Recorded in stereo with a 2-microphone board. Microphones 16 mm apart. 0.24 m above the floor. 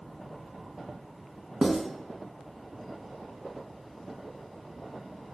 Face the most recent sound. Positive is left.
turn(degrees=-70)  # may be behind; listen again after turning